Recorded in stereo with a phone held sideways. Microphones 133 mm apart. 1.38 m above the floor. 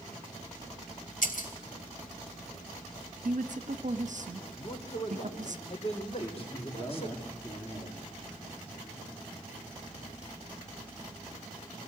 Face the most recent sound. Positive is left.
turn(degrees=25)  # may be behind; listen again after turning